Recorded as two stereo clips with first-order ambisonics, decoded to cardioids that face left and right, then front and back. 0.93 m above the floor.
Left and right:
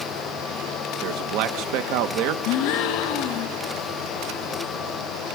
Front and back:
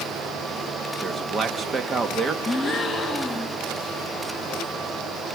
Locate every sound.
1.0 s a man speaking: 110° right, 1.0 m
2.5 s a gasp: 85° left, 1.3 m